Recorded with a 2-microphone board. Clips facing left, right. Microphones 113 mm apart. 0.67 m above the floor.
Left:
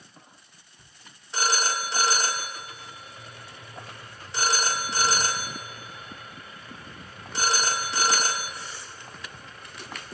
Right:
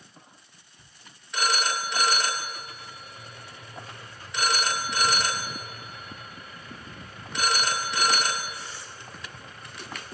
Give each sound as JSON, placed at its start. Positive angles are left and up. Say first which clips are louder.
{"t": 1.3, "sound": "a phone ringing", "louder": "even", "side_deg": 30, "distance_m": 0.9}